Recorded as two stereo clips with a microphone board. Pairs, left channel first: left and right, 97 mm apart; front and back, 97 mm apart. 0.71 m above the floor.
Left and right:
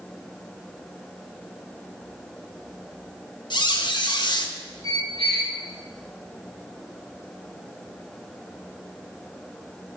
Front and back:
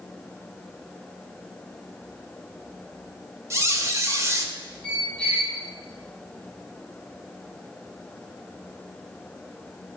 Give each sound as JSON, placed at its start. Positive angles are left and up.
{"t": 3.5, "sound": "a squeak", "azimuth_deg": 125, "distance_m": 0.6}
{"t": 4.8, "sound": "a squeak", "azimuth_deg": -80, "distance_m": 2.5}